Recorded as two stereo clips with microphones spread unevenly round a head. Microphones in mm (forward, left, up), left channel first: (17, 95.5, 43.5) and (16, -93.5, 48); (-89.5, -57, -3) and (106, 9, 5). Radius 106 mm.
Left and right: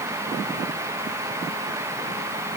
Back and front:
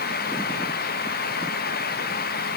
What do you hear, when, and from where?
Only background noise.